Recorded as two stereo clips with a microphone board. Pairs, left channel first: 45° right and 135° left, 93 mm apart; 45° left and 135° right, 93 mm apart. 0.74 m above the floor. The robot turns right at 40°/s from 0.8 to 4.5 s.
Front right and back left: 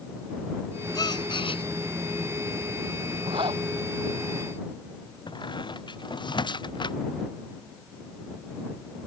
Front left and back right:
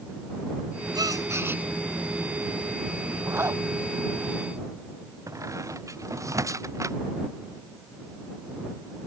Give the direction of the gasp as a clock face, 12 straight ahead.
3 o'clock.